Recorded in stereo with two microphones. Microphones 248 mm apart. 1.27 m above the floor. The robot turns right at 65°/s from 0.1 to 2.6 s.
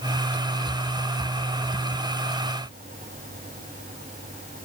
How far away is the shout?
I don't hear a shout.